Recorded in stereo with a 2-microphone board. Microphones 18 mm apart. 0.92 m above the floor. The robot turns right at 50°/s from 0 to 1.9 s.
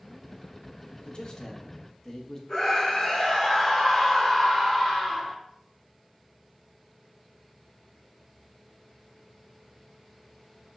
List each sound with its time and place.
1.1 s a man speaking: 115° left, 0.8 m; by 2.4 s 155° left, 0.8 m
2.5 s a scream: 20° left (ahead or behind), 1.1 m